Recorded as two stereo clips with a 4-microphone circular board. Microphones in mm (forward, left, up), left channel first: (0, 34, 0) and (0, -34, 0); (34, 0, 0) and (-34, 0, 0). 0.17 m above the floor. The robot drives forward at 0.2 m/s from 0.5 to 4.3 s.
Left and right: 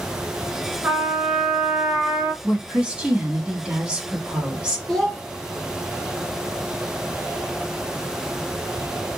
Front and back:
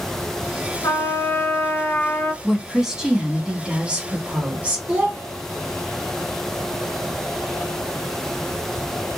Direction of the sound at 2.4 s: 100° right.